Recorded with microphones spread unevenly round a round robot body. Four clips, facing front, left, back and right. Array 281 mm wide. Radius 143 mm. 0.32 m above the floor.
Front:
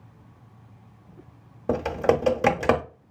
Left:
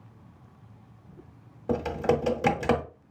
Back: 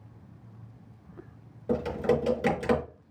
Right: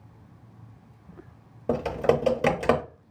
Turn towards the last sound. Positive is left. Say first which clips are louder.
# right 2 dB, front 4 dB
turn(degrees=-35)